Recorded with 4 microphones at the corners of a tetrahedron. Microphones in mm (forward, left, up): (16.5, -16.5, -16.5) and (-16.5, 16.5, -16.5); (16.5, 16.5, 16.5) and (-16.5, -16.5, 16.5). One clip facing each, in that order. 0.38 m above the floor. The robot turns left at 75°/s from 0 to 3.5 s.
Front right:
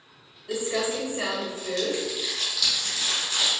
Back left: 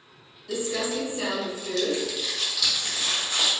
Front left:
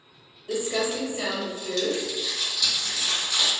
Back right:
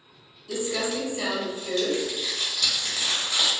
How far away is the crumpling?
About 1.1 m.